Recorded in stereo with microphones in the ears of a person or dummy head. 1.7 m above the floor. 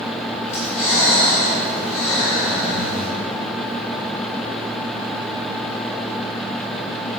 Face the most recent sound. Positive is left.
turn(degrees=20)  # may be behind; listen again after turning